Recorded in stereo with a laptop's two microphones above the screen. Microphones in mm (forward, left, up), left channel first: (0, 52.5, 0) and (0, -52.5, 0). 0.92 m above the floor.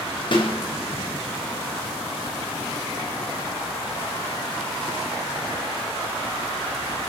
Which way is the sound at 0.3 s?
50° left (ahead or behind).